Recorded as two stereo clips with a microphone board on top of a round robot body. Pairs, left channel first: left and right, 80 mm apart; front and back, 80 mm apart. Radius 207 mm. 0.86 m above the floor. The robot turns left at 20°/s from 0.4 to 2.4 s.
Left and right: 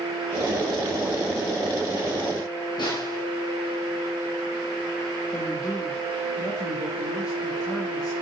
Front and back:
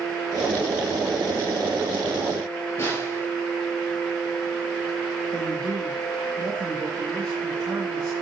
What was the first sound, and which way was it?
A snare drum, 60° left.